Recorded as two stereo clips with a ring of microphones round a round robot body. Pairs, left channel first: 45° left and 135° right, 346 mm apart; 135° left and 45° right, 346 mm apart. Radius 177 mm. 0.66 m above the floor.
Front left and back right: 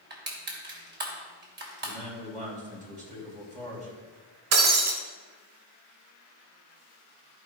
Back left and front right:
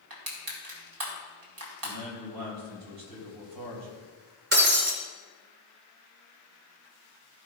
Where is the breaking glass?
105° right, 2.5 m.